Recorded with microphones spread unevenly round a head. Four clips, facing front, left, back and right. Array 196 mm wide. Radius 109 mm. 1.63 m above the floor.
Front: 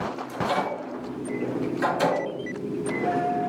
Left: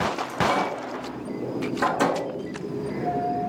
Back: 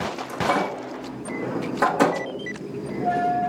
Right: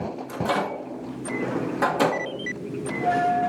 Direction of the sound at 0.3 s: 160° right.